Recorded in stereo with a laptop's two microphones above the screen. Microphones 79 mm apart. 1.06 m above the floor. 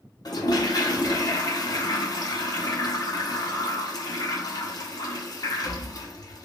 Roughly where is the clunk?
I don't hear a clunk.